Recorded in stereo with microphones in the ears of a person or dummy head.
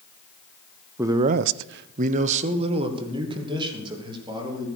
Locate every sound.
1.0 s a man speaking: 15° right (ahead or behind), 0.7 m; by 4.7 s 25° right (ahead or behind), 4 m